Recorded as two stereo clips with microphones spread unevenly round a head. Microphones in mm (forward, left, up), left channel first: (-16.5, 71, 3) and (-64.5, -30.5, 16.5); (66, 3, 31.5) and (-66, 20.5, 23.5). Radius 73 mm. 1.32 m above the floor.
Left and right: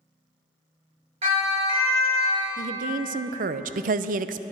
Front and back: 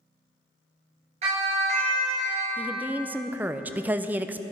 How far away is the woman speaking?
About 0.6 m.